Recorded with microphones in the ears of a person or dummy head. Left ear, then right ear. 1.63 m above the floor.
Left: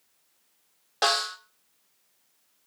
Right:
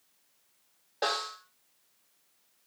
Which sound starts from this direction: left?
A snare drum, at 1.0 s.